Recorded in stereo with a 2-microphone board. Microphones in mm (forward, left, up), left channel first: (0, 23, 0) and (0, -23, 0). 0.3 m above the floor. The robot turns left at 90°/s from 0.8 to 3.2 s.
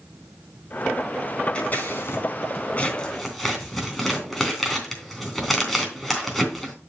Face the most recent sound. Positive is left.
turn(degrees=0)  # may be behind; listen again after turning